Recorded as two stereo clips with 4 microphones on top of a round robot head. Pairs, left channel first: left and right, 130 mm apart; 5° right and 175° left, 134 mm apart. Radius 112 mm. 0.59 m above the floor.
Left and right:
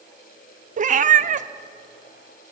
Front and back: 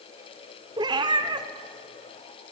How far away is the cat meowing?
About 0.7 m.